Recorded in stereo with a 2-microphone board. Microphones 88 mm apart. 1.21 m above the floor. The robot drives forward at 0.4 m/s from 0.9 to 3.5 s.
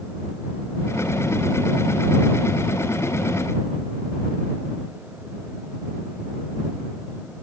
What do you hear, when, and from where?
Only background noise.